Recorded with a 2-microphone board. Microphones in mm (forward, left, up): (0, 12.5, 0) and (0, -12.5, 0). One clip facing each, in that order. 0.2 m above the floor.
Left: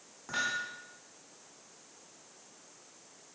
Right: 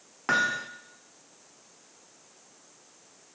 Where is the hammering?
80° right, 5 m.